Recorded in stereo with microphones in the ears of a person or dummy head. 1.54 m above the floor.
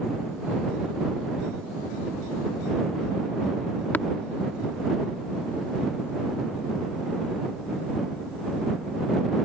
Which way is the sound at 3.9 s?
5° left (ahead or behind).